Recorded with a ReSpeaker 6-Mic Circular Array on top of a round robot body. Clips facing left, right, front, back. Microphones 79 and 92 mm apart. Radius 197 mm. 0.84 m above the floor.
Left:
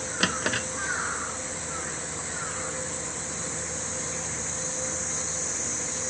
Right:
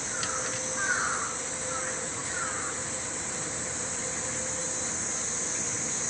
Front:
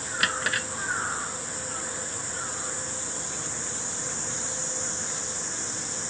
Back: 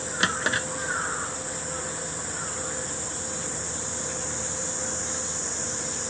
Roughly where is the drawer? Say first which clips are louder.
Left 8 dB, back 2 dB; behind left.